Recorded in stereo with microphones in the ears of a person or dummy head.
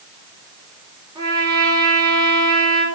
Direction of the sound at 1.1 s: 30° right (ahead or behind).